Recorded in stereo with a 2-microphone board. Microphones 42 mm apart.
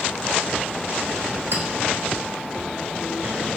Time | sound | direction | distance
1.5 | a clink | 75° right (ahead or behind) | 1.2 m